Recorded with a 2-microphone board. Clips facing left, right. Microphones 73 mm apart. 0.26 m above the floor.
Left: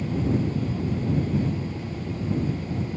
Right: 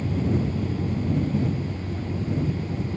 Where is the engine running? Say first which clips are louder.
Even; 30° right (ahead or behind).